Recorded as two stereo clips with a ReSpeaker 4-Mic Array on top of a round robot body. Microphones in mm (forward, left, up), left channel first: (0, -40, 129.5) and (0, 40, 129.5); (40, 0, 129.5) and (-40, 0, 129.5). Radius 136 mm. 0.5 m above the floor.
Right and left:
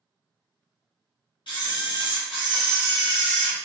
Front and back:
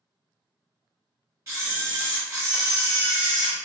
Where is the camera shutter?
120° right, 0.8 m.